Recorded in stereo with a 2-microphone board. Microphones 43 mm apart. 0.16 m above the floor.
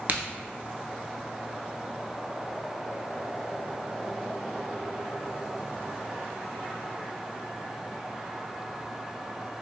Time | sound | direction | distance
0.1 | a crack | 45° right (ahead or behind) | 0.6 m